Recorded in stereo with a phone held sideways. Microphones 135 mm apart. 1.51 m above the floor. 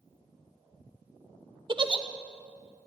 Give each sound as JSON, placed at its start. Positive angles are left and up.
{"t": 1.7, "sound": "a giggle", "side_deg": -35, "distance_m": 0.9}